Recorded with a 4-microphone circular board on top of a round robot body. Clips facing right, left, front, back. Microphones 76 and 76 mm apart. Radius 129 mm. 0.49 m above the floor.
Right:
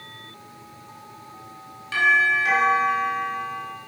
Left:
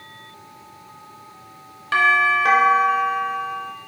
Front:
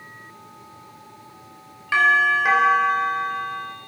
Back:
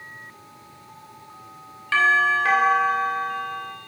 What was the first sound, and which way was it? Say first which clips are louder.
A doorbell: left 2 dB, front 1 dB; 75° left.